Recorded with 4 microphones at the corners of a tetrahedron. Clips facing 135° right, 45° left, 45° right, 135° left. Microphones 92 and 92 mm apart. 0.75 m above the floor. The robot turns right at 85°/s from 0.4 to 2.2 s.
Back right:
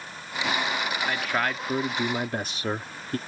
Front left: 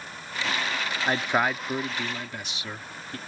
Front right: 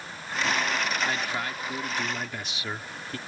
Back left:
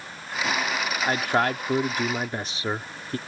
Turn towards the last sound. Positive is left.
turn(degrees=-175)